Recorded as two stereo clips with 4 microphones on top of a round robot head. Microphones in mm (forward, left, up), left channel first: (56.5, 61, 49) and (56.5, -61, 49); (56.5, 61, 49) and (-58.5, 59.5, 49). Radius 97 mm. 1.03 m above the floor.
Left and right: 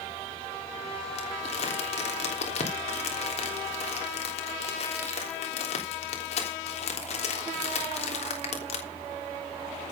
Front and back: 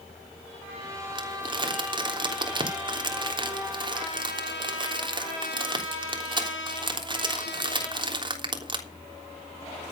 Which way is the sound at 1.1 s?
135° left.